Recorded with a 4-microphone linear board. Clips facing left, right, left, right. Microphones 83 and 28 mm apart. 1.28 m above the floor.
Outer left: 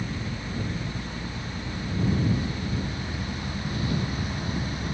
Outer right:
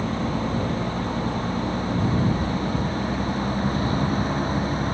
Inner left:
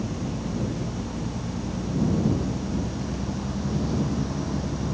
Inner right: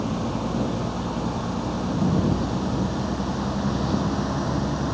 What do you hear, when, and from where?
0.0 s a vehicle: 50° right (ahead or behind); by 5.0 s 40° right (ahead or behind)